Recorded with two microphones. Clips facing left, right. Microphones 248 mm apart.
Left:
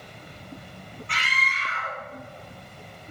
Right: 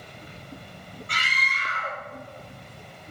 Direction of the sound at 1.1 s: 45° right (ahead or behind).